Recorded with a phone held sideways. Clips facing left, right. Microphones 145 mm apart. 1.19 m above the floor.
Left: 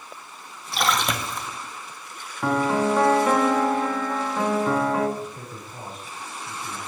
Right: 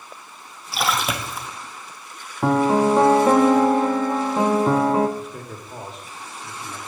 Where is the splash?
5° right (ahead or behind), 0.7 m.